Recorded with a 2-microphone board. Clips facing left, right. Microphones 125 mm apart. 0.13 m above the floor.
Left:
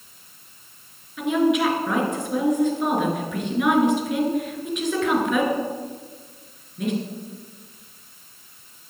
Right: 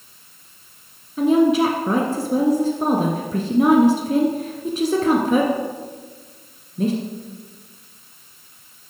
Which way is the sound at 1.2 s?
35° right (ahead or behind).